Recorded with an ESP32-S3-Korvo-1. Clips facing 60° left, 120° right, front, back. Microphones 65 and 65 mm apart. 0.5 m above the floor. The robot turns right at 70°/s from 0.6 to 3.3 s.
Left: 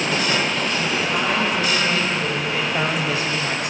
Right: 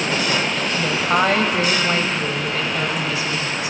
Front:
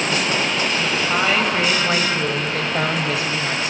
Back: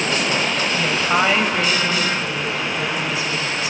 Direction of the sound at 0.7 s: 145° right.